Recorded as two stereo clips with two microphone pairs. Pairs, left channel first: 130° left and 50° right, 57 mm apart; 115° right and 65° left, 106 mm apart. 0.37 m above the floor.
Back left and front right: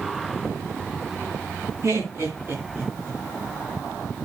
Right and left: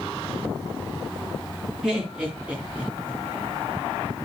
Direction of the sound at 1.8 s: 15° right.